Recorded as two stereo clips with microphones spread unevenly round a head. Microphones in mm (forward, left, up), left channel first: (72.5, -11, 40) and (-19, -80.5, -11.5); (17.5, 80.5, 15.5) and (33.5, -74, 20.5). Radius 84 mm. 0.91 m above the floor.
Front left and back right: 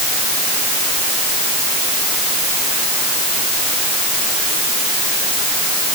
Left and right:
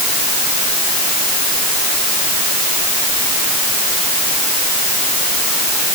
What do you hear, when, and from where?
Only background noise.